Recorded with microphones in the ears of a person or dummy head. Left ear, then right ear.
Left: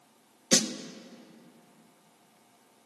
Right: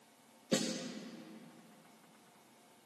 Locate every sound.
0.5 s a snare drum: 65° left (ahead or behind), 1.2 m